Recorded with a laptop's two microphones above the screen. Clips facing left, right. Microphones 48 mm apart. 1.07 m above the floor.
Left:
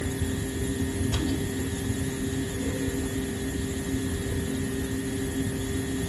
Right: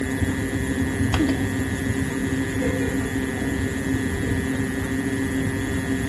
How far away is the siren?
I don't hear a siren.